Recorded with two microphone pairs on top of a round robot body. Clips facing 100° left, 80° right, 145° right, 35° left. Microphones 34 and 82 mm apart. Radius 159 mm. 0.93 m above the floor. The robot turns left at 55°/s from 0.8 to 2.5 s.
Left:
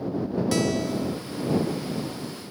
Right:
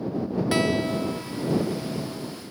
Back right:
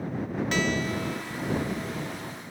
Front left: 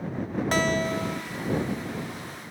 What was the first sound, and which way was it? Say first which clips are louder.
A guitar: right 3 dB, front left 4 dB; 15° right.